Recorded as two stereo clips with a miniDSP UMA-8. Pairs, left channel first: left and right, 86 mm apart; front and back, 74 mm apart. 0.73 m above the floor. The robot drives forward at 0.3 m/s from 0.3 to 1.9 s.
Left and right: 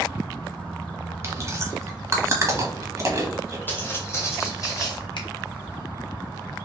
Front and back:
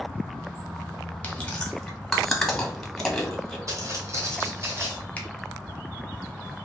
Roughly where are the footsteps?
Behind left.